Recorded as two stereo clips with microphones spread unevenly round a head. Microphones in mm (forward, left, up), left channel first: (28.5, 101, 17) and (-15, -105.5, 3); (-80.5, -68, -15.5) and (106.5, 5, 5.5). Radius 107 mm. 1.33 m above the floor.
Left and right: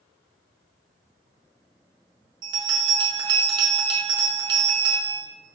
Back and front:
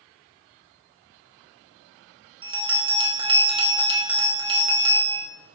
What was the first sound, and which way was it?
A bell, 35° right.